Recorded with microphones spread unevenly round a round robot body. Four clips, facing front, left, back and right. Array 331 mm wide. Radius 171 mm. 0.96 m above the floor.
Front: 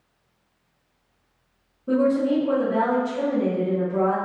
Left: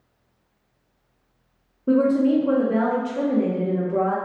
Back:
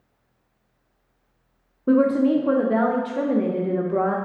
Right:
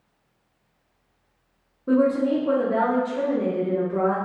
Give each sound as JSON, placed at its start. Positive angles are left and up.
{"t": 1.9, "sound": "a woman speaking", "azimuth_deg": 165, "distance_m": 0.6}